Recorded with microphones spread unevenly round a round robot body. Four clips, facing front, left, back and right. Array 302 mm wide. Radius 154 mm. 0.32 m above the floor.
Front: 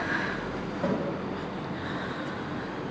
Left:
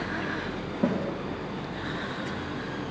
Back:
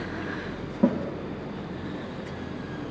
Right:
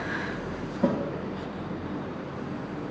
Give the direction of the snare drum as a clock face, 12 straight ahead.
6 o'clock.